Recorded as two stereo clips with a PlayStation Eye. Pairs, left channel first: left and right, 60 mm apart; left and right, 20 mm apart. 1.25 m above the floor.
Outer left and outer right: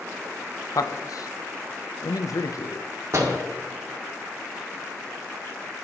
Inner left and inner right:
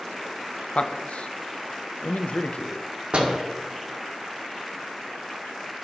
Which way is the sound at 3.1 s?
50° right (ahead or behind).